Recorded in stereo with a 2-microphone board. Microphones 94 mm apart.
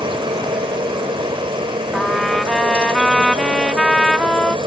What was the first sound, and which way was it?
A helicopter, 65° right (ahead or behind).